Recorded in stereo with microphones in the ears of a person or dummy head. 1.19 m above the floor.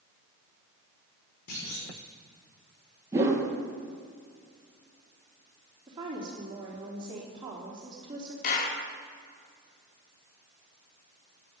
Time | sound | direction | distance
1.5 | a clunk | 55° left (ahead or behind) | 5 m
3.1 | a whoosh | 15° right (ahead or behind) | 3.5 m
5.9 | a woman speaking | 30° right (ahead or behind) | 3.5 m
8.4 | a clap | 45° left (ahead or behind) | 2 m